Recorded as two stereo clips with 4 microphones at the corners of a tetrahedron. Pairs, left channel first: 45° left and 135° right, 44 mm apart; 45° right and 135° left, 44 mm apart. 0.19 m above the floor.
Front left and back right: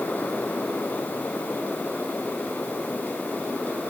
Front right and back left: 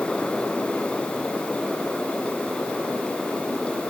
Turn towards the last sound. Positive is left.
No sound to turn to.